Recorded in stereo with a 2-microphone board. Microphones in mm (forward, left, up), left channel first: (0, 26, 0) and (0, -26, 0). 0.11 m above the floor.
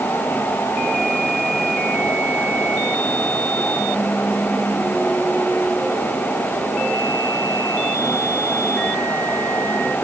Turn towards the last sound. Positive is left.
No sound to turn to.